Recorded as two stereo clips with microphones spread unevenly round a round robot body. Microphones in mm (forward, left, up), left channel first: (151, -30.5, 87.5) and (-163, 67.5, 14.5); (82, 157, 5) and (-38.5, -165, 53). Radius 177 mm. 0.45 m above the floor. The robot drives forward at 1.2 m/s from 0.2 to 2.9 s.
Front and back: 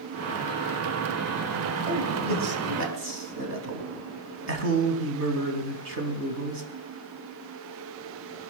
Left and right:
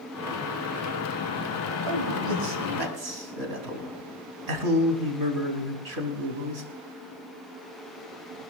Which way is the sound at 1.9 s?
135° right.